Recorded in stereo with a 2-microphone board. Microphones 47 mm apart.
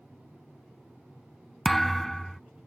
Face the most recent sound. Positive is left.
turn(degrees=5)  # may be behind; listen again after turning